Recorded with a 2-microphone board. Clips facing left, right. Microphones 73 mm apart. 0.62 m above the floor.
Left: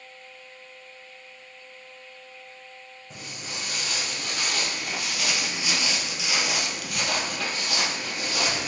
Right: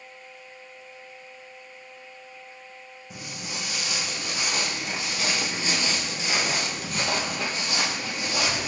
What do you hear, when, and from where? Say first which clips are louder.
3.1 s footsteps: right 1 dB; 5° right (ahead or behind), 1.7 m; by 8.7 s 25° right (ahead or behind), 1.7 m